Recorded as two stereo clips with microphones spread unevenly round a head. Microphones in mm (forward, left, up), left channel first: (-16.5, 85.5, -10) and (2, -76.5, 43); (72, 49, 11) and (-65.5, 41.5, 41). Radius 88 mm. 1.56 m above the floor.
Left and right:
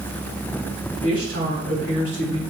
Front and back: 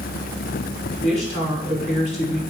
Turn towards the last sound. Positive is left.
turn(degrees=-50)